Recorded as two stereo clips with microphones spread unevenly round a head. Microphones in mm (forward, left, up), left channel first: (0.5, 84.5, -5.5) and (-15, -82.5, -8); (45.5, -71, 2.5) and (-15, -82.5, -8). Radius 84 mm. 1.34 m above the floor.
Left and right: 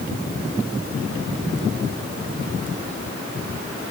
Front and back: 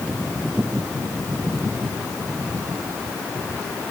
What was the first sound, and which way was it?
Only background noise.